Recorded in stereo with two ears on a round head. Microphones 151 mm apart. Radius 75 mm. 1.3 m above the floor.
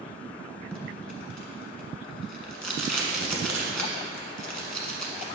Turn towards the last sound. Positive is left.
turn(degrees=5)  # may be behind; listen again after turning